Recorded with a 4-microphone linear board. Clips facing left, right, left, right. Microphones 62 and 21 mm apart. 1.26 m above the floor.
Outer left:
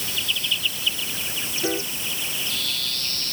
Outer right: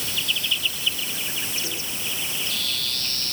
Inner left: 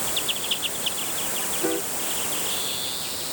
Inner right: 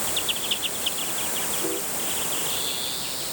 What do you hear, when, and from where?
1.6 s a piano: 50° left (ahead or behind)